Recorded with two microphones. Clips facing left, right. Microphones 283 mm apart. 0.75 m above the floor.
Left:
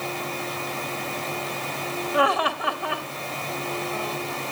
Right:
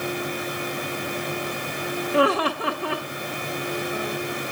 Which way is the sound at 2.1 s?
35° right (ahead or behind).